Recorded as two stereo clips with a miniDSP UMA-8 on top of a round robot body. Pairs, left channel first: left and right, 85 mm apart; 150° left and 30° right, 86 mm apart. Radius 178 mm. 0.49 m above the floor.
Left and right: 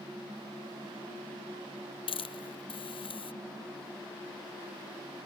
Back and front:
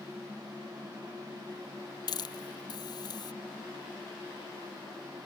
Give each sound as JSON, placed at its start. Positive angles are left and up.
{"t": 2.1, "sound": "a hiss", "azimuth_deg": 110}